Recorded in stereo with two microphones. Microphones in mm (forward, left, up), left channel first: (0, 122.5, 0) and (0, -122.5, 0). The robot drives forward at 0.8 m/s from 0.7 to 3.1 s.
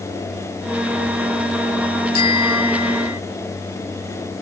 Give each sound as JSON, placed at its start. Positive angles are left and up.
{"t": 2.1, "sound": "a bicycle bell", "side_deg": -90}